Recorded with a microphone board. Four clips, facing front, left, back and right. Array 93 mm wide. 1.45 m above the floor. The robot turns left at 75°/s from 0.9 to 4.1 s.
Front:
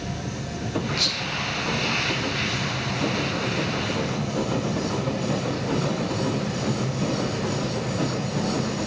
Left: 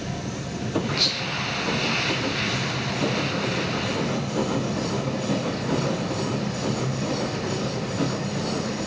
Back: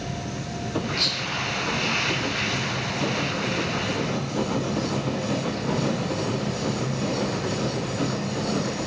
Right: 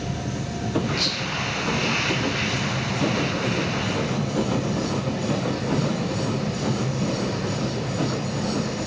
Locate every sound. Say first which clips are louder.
1.0 s whispering: right 1 dB, even; 55° left, 0.5 m; by 1.4 s 20° left, 0.5 m